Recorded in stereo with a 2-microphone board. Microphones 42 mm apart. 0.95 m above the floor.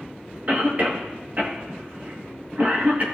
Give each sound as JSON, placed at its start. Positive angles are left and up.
{"t": 0.5, "sound": "a cough", "side_deg": -45, "distance_m": 1.4}